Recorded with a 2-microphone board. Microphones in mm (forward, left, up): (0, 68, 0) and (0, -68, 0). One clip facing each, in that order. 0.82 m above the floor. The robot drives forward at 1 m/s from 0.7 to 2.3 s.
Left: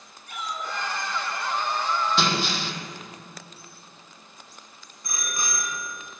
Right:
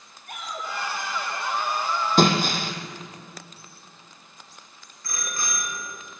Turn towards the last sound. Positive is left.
turn(degrees=20)  # may be behind; listen again after turning